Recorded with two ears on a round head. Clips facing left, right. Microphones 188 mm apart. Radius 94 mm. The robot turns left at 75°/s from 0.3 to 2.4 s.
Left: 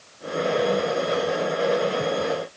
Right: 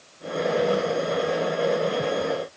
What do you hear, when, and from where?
Only background noise.